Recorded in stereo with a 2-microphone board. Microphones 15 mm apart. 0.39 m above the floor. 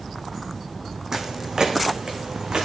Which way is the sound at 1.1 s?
30° right (ahead or behind).